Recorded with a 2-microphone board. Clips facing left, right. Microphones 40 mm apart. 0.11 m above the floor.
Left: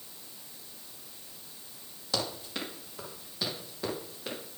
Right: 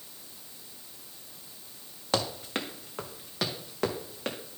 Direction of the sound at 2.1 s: 45° right (ahead or behind).